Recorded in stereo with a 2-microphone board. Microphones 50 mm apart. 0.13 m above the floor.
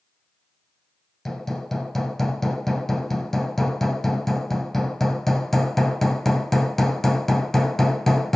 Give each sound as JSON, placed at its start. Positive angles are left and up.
{"t": 1.2, "sound": "hammering", "side_deg": 5, "distance_m": 2.5}